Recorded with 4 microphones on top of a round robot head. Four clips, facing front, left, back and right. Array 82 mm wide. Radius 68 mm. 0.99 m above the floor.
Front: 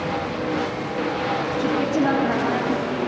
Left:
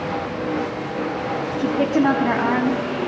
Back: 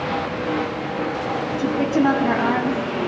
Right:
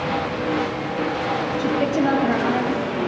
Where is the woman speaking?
115° left, 2.5 m.